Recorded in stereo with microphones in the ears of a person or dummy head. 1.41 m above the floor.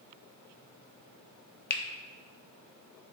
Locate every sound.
1.7 s a finger snap: 65° left (ahead or behind), 1.0 m